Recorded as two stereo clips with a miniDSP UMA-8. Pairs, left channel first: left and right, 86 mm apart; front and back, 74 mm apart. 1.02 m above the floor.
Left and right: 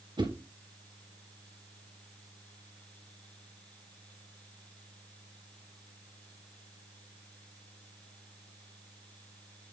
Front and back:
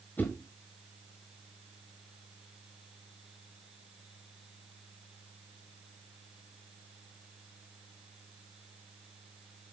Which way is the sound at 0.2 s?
65° right.